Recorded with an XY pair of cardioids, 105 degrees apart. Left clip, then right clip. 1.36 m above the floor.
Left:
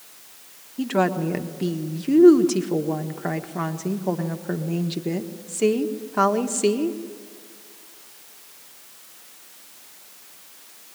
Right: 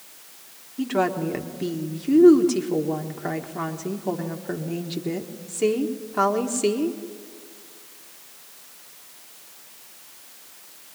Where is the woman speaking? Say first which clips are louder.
Left 1 dB; 15° left, 1.4 m.